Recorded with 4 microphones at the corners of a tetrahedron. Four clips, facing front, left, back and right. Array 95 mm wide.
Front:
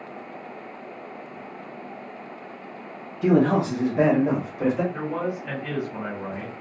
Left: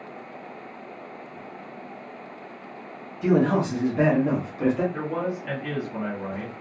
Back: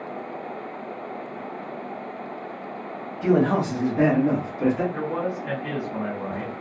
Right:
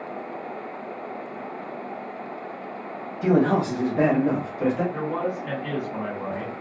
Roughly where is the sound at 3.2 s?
Ahead right.